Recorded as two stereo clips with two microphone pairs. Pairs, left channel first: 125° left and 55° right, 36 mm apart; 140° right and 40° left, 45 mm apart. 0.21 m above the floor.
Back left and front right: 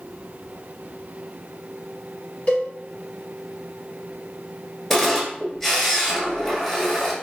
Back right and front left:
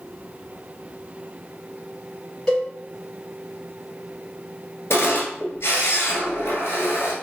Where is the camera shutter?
150° right, 1.2 m.